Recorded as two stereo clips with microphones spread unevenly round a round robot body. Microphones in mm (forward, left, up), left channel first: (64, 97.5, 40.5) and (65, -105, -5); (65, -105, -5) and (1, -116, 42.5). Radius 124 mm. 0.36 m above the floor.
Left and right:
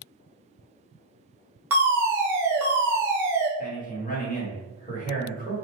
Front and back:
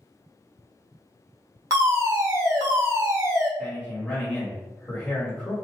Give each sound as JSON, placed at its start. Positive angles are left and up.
{"t": 1.7, "sound": "a fire alarm", "azimuth_deg": -95, "distance_m": 1.8}
{"t": 3.6, "sound": "a man speaking", "azimuth_deg": 40, "distance_m": 1.8}